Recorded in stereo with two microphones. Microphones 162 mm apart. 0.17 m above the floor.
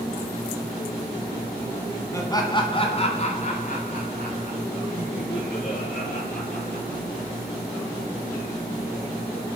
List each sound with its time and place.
2.1 s laughter: 20° left (ahead or behind), 1.1 m; by 7.0 s 65° left (ahead or behind), 3.5 m